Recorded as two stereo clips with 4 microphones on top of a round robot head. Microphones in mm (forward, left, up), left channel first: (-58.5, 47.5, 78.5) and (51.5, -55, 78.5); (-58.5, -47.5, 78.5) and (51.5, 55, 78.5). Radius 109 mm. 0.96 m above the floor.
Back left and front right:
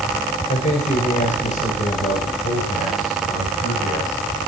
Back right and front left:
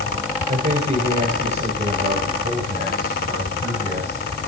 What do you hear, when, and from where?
0.5 s a man speaking: 90° left, 5 m